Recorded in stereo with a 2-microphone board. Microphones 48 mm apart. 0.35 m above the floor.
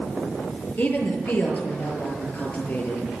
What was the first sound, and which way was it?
A woman speaking, 40° left (ahead or behind).